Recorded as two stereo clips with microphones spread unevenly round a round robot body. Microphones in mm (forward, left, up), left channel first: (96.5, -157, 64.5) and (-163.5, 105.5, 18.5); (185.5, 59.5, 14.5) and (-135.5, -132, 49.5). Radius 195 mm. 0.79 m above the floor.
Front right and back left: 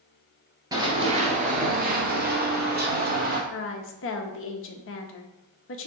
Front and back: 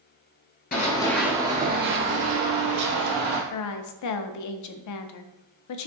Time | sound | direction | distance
0.7 | running footsteps | 50° left | 0.7 m
3.5 | a woman speaking | 10° left | 0.6 m